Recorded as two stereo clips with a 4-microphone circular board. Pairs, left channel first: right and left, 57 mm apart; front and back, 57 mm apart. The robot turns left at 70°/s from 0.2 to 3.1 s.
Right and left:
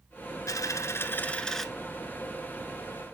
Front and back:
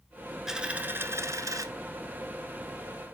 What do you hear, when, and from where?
0.5 s a dropped coin: 100° right, 0.9 m; by 1.6 s straight behind, 0.9 m